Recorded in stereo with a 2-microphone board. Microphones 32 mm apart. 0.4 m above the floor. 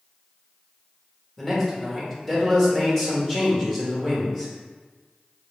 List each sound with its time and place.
1.4 s a man speaking: 10° left (ahead or behind), 1.5 m